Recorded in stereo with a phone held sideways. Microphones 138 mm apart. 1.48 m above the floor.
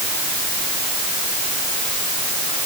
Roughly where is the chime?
No chime in this recording.